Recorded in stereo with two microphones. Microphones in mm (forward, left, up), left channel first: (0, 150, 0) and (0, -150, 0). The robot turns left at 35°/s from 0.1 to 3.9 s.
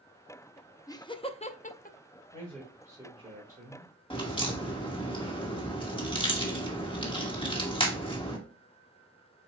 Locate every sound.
0.9 s laughter: 10° left (ahead or behind), 0.5 m; by 2.0 s 30° left (ahead or behind), 0.5 m
2.3 s a man speaking: 10° left, 3 m; by 3.9 s 45° right, 3 m
4.1 s a crack: 15° left (ahead or behind), 1.2 m